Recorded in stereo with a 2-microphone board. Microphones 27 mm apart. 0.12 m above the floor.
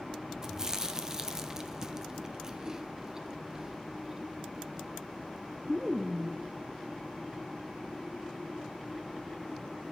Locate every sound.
0.4 s chewing: 20° right (ahead or behind), 0.9 m